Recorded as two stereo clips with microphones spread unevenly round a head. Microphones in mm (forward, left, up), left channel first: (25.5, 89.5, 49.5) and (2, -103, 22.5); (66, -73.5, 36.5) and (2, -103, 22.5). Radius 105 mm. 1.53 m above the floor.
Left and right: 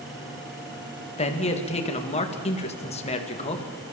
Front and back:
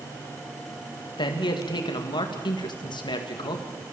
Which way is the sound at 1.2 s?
25° left.